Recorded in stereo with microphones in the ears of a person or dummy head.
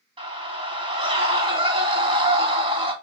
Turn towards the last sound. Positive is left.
turn(degrees=-30)  # may be behind; listen again after turning